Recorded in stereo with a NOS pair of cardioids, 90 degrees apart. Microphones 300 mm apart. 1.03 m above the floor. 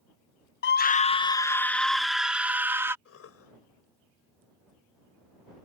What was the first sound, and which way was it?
A scream, 40° left.